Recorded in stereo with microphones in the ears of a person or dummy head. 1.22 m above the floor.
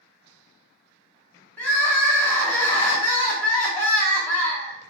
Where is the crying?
5° left (ahead or behind), 0.7 m.